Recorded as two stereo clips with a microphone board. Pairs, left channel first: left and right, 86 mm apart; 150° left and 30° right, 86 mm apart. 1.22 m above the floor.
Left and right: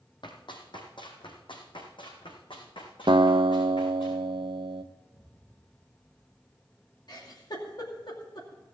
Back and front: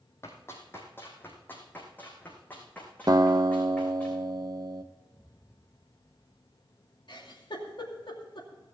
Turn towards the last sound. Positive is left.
turn(degrees=125)